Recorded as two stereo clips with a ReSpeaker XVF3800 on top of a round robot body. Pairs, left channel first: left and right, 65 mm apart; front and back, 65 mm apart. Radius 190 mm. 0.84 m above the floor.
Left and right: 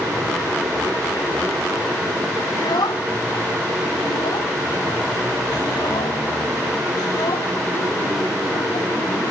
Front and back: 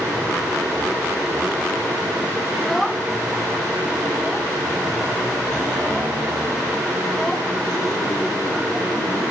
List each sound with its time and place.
2.5 s a child speaking: 90° left